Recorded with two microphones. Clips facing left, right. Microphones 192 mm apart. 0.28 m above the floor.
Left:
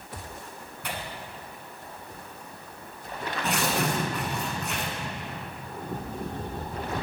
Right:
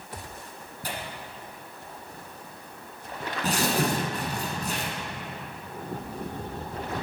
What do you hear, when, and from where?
0.8 s tearing paper: 35° right (ahead or behind), 1.3 m